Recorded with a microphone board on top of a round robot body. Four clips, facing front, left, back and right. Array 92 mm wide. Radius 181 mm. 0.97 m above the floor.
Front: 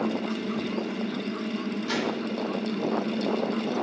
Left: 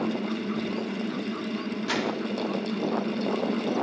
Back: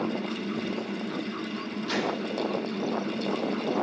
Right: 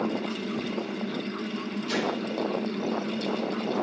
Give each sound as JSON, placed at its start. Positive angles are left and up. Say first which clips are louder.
{"t": 1.9, "sound": "crumpling", "louder": "even, back 1 dB", "azimuth_deg": 85, "distance_m": 2.5}